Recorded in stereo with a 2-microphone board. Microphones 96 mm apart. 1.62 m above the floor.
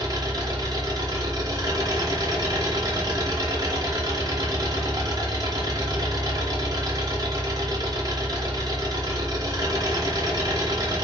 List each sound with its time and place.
0.0 s an engine running: 40° right (ahead or behind), 0.8 m